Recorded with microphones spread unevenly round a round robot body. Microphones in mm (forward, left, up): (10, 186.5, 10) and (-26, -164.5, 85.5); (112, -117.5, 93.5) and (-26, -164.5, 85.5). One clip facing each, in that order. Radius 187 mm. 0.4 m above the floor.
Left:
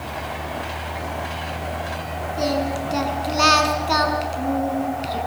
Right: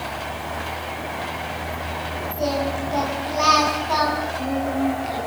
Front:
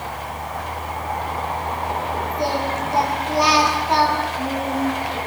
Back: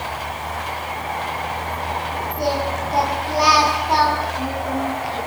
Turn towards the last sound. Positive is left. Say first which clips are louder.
# left 1 dB, back 2 dB
turn(degrees=115)